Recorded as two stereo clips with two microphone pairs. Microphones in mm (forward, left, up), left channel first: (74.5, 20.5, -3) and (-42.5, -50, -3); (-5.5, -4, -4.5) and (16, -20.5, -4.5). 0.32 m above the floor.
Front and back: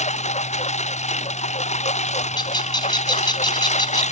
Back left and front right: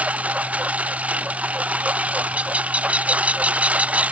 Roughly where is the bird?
Ahead.